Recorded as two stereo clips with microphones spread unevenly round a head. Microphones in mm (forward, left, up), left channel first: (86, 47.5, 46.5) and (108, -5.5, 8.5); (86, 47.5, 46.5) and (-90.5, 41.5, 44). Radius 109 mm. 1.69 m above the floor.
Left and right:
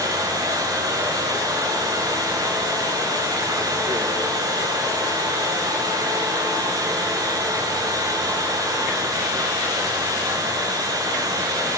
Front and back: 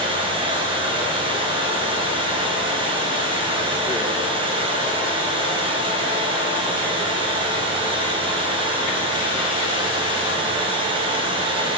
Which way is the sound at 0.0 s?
110° right.